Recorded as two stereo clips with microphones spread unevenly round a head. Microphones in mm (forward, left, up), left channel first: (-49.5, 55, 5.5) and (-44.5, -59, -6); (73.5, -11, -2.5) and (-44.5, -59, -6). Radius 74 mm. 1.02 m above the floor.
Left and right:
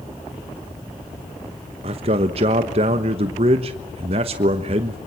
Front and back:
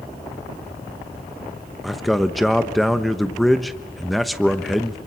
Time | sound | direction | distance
1.8 | a man speaking | 70° right | 1.2 m